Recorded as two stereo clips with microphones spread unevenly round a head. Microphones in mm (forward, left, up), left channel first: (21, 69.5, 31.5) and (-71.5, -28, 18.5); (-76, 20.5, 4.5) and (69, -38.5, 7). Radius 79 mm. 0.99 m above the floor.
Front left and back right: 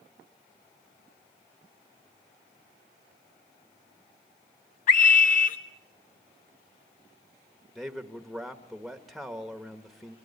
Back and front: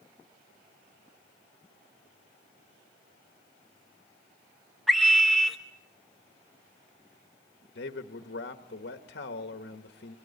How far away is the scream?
About 0.7 m.